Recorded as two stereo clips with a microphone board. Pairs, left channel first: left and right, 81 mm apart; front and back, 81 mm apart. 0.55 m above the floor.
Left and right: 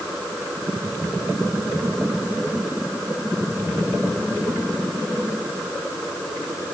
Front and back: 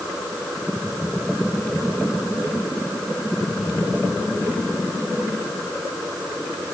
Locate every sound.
Only background noise.